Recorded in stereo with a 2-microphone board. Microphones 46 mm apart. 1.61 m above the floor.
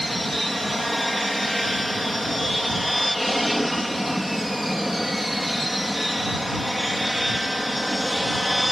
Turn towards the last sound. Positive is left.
turn(degrees=-5)  # may be behind; listen again after turning